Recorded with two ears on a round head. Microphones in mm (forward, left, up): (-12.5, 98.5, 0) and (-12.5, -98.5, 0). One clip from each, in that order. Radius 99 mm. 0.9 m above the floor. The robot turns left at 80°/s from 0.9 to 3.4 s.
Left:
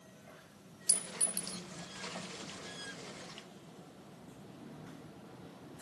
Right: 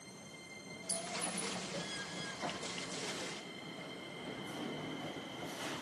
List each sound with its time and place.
0.9 s a clink: 55° left (ahead or behind), 0.6 m; by 1.6 s 50° left (ahead or behind), 0.6 m